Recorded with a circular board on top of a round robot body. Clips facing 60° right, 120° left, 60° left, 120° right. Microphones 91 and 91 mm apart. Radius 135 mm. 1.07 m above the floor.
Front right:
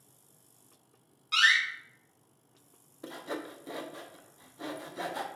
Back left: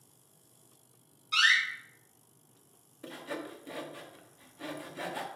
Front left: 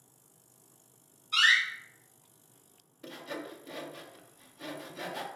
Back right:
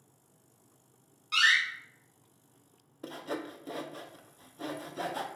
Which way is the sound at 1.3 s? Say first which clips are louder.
Front right 1 dB, even; 100° right.